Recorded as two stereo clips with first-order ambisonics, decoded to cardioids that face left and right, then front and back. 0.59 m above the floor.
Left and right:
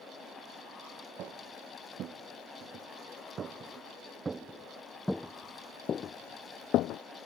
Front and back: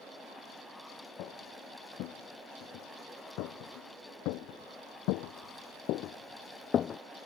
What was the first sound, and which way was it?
Footsteps, 40° right.